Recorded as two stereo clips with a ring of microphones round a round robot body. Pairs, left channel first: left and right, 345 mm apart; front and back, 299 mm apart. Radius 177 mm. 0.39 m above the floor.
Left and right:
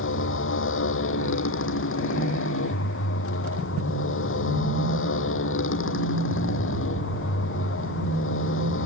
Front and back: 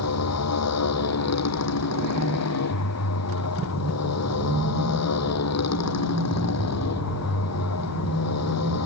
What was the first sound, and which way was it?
A motorcycle, 35° left.